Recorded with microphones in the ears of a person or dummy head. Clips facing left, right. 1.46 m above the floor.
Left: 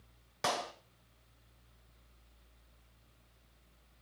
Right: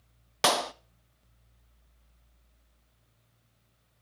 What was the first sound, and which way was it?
A clap, 75° right (ahead or behind).